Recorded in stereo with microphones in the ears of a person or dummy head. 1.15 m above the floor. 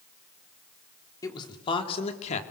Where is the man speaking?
20° left (ahead or behind), 3 m; by 2.4 s 40° left (ahead or behind), 2.5 m.